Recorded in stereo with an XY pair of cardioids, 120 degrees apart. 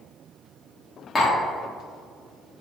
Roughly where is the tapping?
Ahead.